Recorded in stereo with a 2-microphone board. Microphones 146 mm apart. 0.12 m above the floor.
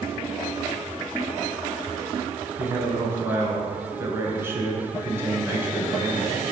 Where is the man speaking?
15° right (ahead or behind), 1.3 m.